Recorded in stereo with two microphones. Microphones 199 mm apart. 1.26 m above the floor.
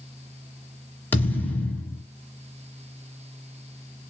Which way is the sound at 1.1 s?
10° left (ahead or behind).